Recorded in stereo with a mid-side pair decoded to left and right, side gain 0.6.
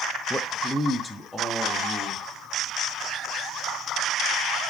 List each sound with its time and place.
0.3 s a man speaking: 5° left, 0.7 m; by 2.2 s 10° left, 2.0 m